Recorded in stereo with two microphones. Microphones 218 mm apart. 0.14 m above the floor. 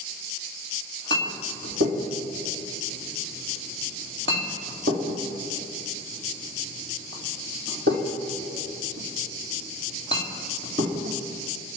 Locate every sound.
1.1 s a clink: 60° right (ahead or behind), 3.5 m